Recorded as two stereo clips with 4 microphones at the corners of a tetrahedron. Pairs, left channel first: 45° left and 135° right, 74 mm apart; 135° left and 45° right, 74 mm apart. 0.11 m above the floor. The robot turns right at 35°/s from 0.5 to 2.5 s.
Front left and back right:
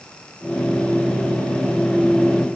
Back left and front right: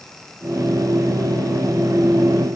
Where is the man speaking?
No man speaking in this recording.